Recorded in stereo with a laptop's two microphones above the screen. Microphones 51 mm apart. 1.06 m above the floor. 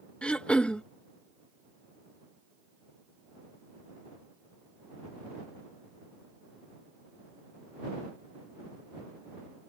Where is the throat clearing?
20° left (ahead or behind).